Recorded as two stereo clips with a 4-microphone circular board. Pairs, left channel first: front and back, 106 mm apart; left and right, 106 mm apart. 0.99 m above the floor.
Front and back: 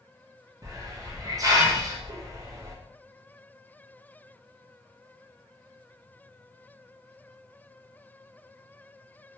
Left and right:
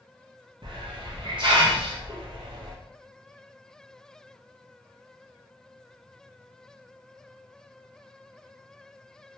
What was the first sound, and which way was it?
A hiss, 125° right.